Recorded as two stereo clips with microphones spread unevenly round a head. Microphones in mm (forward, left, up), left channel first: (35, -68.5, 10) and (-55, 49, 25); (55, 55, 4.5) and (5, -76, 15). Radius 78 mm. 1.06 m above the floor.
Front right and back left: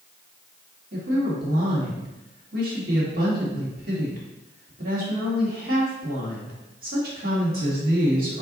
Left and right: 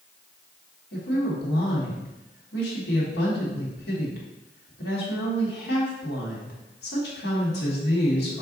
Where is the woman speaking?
90° left, 1.5 m.